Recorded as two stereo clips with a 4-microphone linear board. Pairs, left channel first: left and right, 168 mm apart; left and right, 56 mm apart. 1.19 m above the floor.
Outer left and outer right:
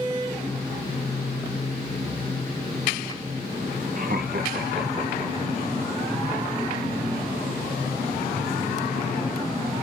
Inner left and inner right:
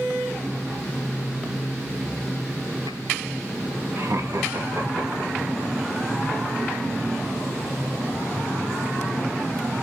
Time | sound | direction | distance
4.0 | laughter | 50° right (ahead or behind) | 1.1 m